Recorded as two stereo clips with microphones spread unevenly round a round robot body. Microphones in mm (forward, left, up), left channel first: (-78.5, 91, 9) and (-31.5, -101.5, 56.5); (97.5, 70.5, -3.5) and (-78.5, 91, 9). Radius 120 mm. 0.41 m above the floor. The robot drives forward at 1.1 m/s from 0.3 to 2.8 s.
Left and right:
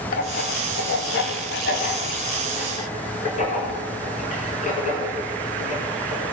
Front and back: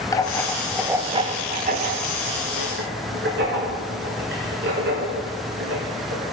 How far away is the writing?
About 1.1 m.